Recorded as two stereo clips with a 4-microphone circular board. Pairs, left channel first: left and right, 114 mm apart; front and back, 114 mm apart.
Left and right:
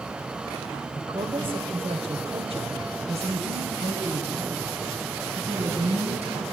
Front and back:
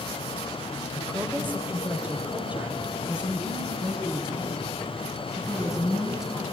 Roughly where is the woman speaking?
Right.